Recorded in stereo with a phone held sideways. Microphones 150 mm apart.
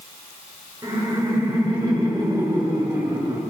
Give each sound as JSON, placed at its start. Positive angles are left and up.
{"t": 0.8, "sound": "laughter", "side_deg": -20, "distance_m": 5.0}